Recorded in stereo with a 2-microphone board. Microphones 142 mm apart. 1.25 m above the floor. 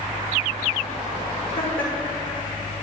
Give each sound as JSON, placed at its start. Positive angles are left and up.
{"t": 1.6, "sound": "laughter", "side_deg": 80, "distance_m": 2.0}